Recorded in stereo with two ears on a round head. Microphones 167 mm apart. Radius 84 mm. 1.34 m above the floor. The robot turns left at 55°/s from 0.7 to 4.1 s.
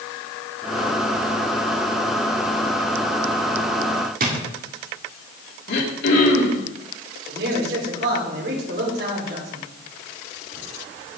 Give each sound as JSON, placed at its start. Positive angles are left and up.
{"t": 4.2, "sound": "a drawer", "side_deg": -50, "distance_m": 2.0}
{"t": 5.7, "sound": "throat clearing", "side_deg": 60, "distance_m": 2.5}
{"t": 7.3, "sound": "a man speaking", "side_deg": -60, "distance_m": 5.0}